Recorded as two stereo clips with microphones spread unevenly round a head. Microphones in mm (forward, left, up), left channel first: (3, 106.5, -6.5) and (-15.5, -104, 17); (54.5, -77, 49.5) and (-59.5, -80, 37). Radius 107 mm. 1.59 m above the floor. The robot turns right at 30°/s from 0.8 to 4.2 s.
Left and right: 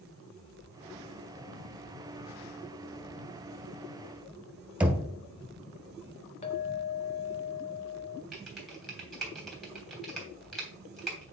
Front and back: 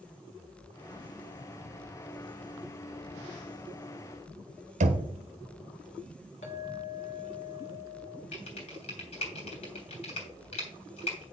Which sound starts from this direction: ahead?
Typing on a keyboard, at 8.3 s.